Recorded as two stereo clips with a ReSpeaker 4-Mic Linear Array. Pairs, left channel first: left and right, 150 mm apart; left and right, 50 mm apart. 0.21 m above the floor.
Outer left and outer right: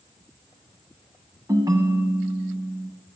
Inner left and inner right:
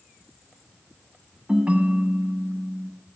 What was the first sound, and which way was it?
A ringtone, 25° right (ahead or behind).